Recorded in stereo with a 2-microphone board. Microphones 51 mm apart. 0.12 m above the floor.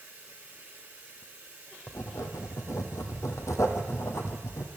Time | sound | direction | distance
0.0 | running water | 25° right (ahead or behind) | 4.5 m
1.9 | writing | 75° left (ahead or behind) | 2 m